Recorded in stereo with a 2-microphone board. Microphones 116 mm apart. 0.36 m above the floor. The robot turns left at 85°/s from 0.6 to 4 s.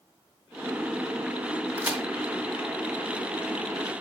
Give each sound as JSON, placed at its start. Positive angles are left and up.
{"t": 1.8, "sound": "a crack", "side_deg": -20, "distance_m": 1.6}